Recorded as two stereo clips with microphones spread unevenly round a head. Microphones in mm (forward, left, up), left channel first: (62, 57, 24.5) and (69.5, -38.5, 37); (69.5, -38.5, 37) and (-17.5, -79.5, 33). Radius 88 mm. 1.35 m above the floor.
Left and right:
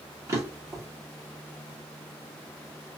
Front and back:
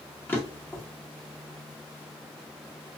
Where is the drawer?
40° right, 0.9 m.